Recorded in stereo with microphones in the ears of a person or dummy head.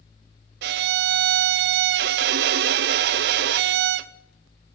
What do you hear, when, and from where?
0.6 s a violin: 60° right (ahead or behind), 0.6 m